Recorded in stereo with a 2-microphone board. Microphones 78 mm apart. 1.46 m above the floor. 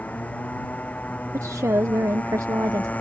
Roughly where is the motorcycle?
Left.